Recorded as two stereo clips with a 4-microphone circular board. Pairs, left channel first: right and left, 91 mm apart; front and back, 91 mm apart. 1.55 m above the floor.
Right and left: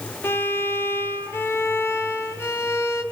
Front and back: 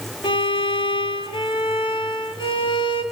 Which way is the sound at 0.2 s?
25° right.